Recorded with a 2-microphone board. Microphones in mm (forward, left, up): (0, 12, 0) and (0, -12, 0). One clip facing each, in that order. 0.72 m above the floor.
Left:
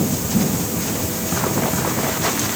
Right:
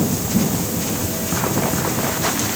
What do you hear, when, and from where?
Only background noise.